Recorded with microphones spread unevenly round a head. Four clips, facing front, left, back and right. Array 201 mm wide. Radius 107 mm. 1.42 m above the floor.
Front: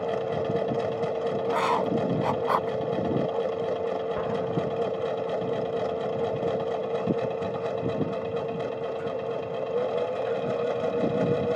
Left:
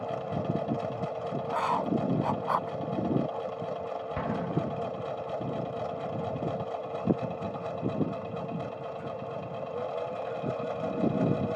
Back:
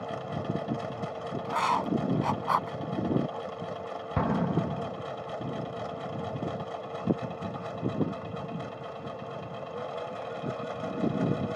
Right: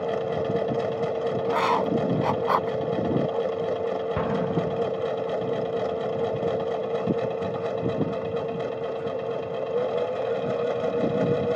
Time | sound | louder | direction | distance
0.0 | a machine running | right 7 dB, front 8 dB | 55° right | ?
1.4 | writing | right 5 dB, front 1 dB | 70° right | ?
4.2 | an explosion | right 3 dB, front 1 dB | 165° right | ?